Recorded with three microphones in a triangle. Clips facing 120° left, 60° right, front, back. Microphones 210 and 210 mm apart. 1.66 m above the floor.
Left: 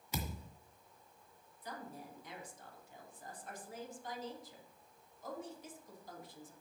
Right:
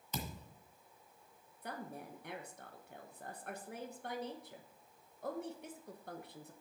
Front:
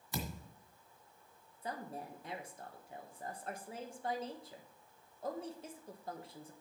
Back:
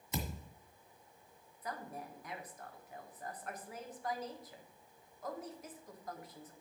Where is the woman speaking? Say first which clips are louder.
Right 2 dB, front 1 dB; 60° right, 1.2 m.